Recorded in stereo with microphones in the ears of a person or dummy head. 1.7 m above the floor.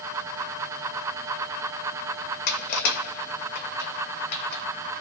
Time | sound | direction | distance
2.5 | crushing | 50° left (ahead or behind) | 0.5 m